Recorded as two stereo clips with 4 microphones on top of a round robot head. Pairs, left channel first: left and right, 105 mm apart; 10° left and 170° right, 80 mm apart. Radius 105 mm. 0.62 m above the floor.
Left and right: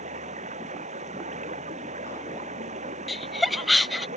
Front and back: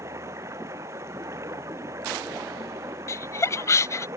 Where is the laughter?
Straight ahead.